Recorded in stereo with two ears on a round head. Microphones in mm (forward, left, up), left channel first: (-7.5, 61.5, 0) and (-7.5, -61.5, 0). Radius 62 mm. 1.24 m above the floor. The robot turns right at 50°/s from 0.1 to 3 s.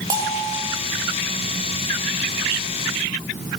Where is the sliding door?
No sliding door in this recording.